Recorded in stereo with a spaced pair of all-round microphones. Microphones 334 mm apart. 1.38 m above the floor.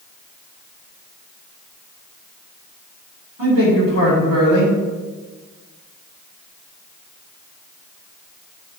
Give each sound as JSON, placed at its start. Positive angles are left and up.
{"t": 3.4, "sound": "a man speaking", "side_deg": -75, "distance_m": 3.5}